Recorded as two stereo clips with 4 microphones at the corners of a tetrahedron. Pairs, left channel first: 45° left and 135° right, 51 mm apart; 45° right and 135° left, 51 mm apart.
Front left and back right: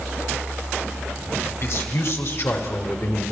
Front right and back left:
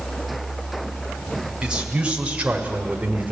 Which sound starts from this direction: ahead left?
A man speaking, at 1.6 s.